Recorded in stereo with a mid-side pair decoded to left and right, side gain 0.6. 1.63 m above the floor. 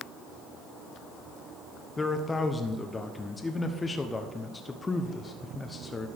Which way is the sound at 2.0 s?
20° left.